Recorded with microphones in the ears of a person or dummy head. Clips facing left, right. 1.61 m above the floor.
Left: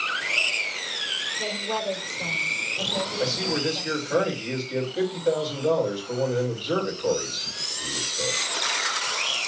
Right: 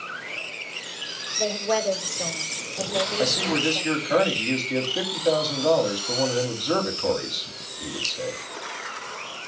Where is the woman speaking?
70° right (ahead or behind), 4.5 m.